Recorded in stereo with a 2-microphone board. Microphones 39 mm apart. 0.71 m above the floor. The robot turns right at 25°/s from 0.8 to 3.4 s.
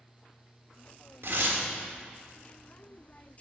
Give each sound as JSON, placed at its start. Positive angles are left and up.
{"t": 1.2, "sound": "tearing paper", "side_deg": -75, "distance_m": 1.4}